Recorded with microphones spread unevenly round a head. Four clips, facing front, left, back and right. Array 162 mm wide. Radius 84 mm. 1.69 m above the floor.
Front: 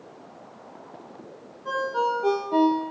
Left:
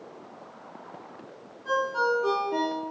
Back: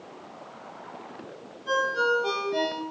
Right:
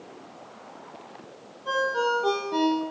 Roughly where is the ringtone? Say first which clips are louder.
Even, even; ahead.